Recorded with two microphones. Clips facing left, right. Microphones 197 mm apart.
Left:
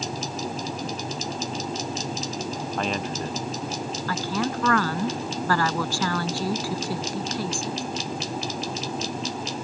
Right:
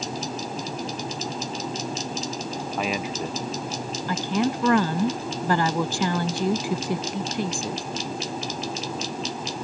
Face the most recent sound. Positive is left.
turn(degrees=-20)  # may be behind; listen again after turning